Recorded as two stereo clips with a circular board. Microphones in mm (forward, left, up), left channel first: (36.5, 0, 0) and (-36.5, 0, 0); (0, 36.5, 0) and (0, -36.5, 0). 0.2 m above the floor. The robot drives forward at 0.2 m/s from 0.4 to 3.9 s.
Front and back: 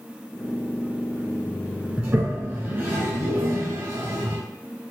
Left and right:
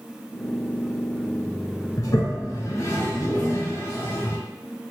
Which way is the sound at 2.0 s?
115° left.